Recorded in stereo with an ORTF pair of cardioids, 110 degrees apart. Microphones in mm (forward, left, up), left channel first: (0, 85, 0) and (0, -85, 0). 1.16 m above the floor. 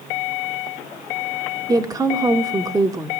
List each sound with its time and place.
1.7 s a woman speaking: 20° right, 2.0 m